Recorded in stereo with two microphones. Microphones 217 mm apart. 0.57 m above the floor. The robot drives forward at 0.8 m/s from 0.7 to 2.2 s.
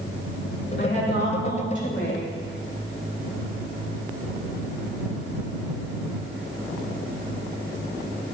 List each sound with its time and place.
0.8 s a woman speaking: 45° left (ahead or behind), 2.5 m; by 2.3 s 65° left (ahead or behind), 2 m